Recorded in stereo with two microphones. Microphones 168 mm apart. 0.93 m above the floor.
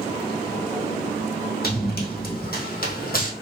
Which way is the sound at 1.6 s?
65° left (ahead or behind).